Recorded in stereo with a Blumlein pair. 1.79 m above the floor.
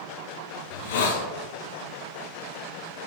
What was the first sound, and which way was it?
A hiss, 55° left.